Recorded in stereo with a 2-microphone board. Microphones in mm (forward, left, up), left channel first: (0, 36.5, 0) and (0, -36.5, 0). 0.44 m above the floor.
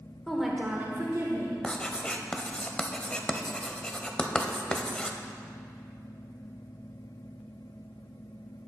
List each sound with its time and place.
0.3 s a woman speaking: 5° left (ahead or behind), 1.3 m; by 1.5 s 55° right (ahead or behind), 1.6 m
1.6 s writing: 15° left (ahead or behind), 0.5 m